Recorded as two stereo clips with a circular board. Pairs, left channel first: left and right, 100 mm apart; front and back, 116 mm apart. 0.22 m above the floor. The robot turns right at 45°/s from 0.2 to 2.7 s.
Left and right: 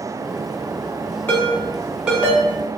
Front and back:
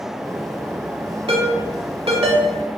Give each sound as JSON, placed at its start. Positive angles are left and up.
{"t": 1.3, "sound": "a ringtone", "azimuth_deg": 155, "distance_m": 0.7}